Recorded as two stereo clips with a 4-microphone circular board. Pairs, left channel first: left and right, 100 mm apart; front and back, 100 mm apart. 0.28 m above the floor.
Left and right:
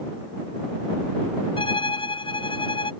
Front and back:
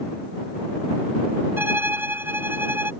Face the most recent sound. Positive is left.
turn(degrees=115)